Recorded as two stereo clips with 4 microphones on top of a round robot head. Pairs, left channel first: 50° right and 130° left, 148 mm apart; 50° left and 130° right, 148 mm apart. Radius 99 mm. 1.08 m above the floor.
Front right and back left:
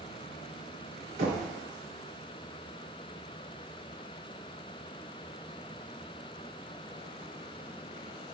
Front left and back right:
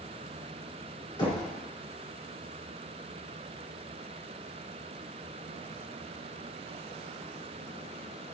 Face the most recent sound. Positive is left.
turn(degrees=105)